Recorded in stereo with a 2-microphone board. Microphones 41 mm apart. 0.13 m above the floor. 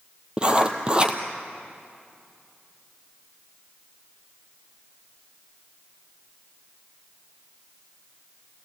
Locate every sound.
0.4 s writing: 25° right (ahead or behind), 1.4 m